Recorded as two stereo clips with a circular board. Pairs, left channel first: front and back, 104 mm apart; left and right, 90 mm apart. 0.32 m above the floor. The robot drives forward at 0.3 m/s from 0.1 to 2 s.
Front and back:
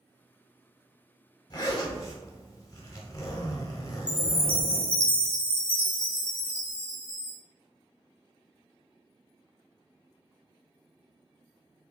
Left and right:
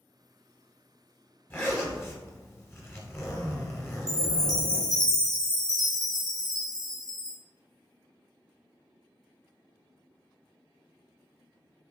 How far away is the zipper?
About 1.0 m.